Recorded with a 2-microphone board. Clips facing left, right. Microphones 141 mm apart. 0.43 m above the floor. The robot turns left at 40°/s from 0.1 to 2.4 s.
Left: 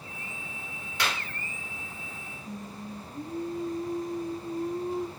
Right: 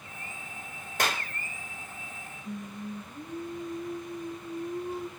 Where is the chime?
I don't hear a chime.